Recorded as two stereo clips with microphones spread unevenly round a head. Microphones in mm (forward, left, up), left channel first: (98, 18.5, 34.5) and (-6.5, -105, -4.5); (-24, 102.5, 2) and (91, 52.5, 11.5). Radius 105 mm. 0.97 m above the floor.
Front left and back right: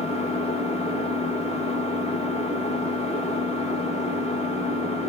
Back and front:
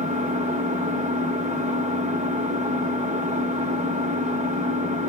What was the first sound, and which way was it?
An engine running, straight ahead.